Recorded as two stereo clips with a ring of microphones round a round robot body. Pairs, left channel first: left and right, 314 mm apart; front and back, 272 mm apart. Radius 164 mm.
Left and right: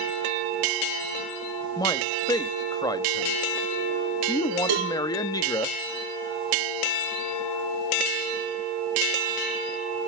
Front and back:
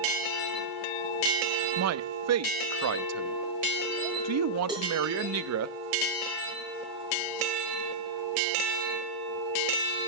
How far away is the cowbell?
About 5 m.